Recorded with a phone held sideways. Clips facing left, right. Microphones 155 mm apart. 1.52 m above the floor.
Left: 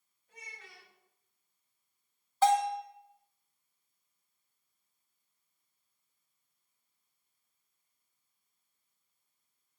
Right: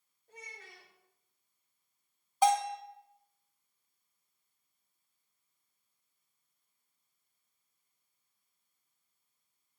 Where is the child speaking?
65° right (ahead or behind), 2.5 m.